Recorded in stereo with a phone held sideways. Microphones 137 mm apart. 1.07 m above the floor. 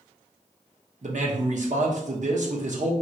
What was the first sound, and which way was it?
A man speaking, 60° right (ahead or behind).